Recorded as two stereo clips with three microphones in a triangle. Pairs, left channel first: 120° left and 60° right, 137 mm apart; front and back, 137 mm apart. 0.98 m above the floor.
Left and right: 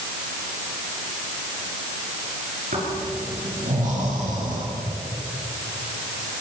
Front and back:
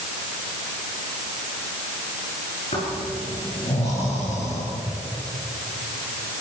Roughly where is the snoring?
Ahead right.